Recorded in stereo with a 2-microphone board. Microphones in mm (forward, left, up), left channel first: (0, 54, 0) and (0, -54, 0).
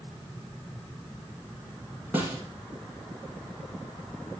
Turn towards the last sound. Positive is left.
turn(degrees=-20)  # may be behind; listen again after turning